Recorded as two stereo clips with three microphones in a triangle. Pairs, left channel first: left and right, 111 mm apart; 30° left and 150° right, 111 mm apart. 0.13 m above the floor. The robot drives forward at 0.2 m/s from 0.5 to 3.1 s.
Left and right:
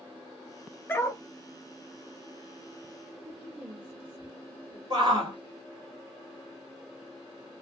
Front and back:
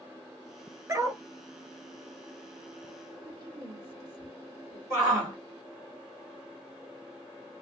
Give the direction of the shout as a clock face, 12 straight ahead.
3 o'clock.